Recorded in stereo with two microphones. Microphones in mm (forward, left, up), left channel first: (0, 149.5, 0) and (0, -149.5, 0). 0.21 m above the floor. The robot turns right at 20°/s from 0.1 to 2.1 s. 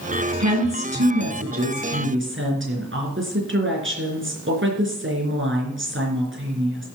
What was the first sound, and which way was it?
A woman speaking, 80° right.